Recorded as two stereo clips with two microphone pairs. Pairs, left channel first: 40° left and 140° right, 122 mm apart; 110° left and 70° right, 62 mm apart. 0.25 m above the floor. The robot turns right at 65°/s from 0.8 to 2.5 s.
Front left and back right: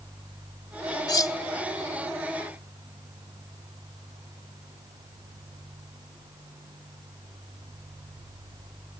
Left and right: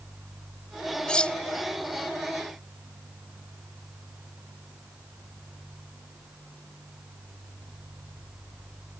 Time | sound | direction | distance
1.1 | cutlery clinking | 50° left | ?